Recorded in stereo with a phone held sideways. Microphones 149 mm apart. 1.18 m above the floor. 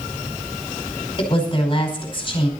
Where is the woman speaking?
35° left (ahead or behind), 5 m.